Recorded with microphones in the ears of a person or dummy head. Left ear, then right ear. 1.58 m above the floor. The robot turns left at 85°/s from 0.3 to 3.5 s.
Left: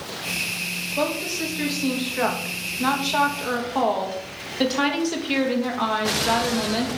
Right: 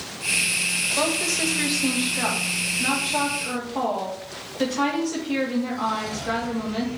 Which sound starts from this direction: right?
A woman speaking, at 1.0 s.